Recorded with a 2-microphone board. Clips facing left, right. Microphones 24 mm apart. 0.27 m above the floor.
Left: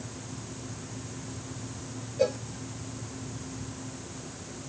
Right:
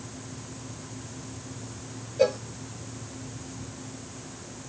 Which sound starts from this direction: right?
A cowbell, at 2.2 s.